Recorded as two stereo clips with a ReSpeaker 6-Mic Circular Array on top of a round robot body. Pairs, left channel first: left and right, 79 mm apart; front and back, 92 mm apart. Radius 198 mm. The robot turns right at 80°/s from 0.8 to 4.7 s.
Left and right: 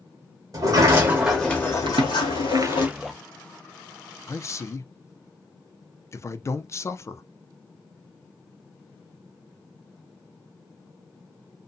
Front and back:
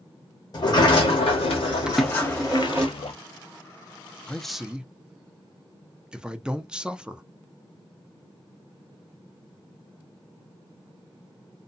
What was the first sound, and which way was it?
A sliding door, 45° right.